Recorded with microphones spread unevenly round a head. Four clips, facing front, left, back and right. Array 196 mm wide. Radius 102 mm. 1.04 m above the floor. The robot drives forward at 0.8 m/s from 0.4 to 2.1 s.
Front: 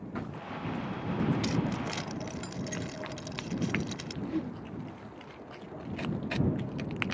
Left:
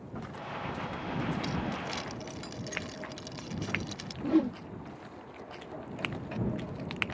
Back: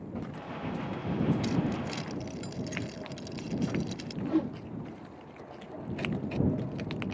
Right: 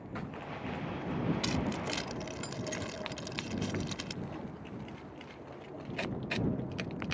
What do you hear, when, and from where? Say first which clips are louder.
1.4 s keys jangling: even, back 1 dB; 105° right; by 4.1 s 115° right
4.2 s a whoosh: left 16 dB, back 6 dB; 110° left